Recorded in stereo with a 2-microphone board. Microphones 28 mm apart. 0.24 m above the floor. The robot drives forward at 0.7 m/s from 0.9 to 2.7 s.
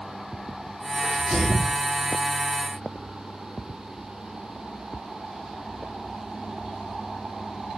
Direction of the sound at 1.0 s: 15° right (ahead or behind).